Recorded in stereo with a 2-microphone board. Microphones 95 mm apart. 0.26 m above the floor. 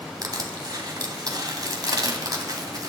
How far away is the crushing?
About 2 m.